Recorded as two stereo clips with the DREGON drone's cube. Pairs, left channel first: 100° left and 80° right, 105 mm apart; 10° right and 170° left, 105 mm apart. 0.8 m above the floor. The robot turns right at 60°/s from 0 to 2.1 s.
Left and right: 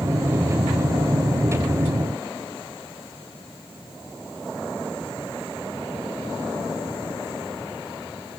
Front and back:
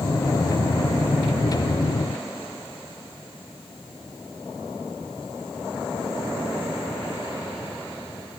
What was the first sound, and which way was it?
Only background noise.